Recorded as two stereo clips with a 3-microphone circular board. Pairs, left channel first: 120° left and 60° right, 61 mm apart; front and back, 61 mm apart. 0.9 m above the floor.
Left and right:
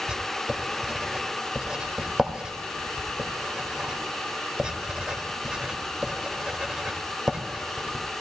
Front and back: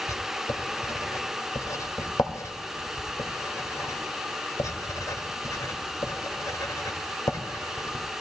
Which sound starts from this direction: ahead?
Writing, at 0.1 s.